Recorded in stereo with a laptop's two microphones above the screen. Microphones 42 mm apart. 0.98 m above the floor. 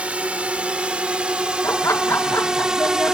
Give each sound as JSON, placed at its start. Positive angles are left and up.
{"t": 0.0, "sound": "a drone", "side_deg": -30}
{"t": 1.6, "sound": "laughter", "side_deg": 70}